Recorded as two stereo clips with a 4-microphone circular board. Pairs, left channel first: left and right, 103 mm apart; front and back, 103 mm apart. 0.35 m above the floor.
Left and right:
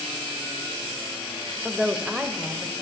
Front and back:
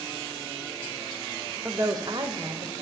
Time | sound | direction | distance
1.6 | a woman speaking | 175° right | 0.8 m